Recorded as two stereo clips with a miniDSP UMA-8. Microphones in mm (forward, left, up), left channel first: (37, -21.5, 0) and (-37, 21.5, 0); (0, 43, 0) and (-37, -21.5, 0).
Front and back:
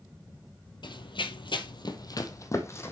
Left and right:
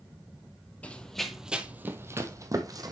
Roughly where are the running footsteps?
Ahead.